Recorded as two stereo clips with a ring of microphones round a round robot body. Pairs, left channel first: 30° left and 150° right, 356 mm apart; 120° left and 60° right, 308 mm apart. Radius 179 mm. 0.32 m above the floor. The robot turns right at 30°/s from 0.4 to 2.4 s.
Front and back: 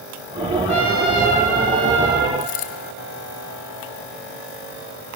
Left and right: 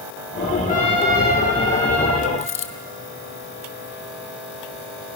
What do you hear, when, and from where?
0.7 s a trumpet: 140° right, 2.5 m; by 2.3 s 90° right, 2.5 m
2.4 s a dropped coin: 70° left, 2 m